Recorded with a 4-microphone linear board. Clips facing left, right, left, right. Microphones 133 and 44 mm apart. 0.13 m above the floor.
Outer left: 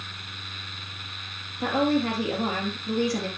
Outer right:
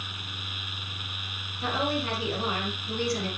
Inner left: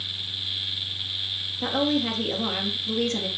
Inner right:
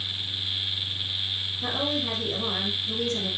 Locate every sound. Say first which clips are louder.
1.6 s a woman speaking: outer left 6 dB, inner left 5 dB; 45° left (ahead or behind), 2.5 m